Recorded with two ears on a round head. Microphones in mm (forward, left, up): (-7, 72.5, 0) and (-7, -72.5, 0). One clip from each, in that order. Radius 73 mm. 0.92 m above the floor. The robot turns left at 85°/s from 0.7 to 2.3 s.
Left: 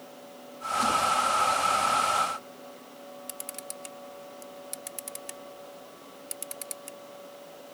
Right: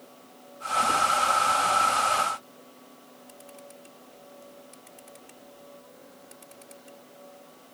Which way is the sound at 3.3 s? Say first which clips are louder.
Left 2 dB; 75° left (ahead or behind).